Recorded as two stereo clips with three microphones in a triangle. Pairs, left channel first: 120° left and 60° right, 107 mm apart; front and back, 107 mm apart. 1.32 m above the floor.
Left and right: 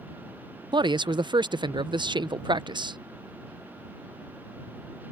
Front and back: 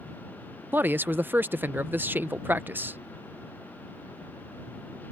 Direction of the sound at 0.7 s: 110° right.